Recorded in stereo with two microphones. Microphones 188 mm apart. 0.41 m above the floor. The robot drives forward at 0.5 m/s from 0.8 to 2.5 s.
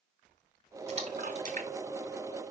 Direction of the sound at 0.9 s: 40° right (ahead or behind).